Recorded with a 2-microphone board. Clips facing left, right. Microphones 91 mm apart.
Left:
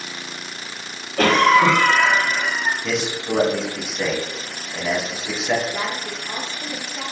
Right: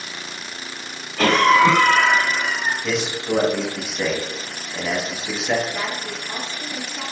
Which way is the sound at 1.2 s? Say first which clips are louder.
Even; 65° left (ahead or behind).